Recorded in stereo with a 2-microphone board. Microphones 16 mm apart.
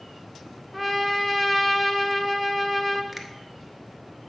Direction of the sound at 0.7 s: 5° left (ahead or behind).